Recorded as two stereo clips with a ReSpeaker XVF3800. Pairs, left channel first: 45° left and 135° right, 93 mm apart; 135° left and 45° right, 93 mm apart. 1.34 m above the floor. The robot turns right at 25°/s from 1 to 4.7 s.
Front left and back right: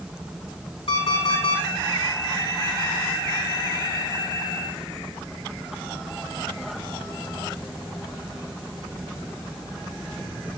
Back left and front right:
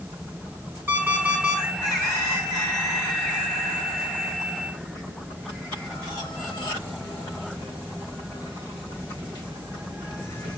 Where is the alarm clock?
20° left, 6 m; by 1.6 s 40° left, 6 m.